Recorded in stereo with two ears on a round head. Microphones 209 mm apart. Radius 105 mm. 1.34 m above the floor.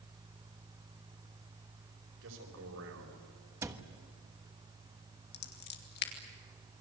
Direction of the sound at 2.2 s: 60° right (ahead or behind).